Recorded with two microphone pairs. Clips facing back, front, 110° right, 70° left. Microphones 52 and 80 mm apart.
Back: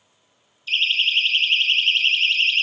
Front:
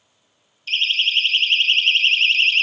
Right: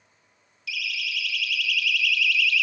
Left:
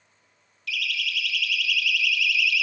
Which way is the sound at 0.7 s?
25° right.